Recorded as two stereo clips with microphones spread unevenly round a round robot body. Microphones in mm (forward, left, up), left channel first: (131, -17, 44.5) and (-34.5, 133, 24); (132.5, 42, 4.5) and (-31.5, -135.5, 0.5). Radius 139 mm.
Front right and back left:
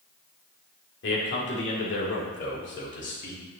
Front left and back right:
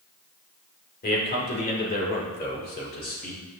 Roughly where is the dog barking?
I don't hear a dog barking.